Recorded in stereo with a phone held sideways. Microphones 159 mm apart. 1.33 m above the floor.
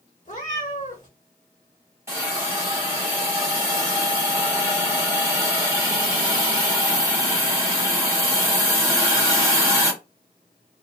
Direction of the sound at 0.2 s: 50° left (ahead or behind).